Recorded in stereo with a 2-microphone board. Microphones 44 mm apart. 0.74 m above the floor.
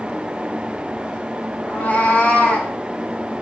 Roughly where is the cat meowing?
Left.